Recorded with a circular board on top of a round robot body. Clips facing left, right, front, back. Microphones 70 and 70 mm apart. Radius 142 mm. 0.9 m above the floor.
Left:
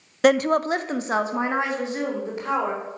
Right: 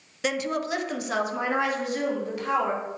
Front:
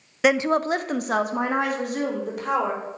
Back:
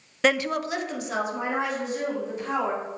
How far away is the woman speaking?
About 0.7 m.